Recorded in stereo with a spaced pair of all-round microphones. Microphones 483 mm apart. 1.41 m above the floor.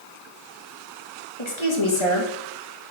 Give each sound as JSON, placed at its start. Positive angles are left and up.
{"t": 1.4, "sound": "a woman speaking", "side_deg": 75, "distance_m": 2.5}